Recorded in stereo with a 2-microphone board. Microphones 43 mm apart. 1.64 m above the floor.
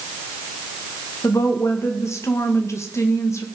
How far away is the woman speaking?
About 2.0 m.